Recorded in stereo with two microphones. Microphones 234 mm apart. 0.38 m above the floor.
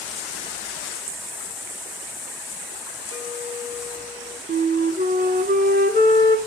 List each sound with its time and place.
3.1 s a clink: 65° right (ahead or behind), 1.8 m
4.5 s a flute: 40° right (ahead or behind), 1.6 m